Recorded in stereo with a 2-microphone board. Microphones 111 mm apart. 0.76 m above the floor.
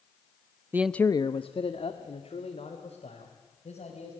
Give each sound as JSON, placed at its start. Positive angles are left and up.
{"t": 0.7, "sound": "a man speaking", "side_deg": -20, "distance_m": 0.6}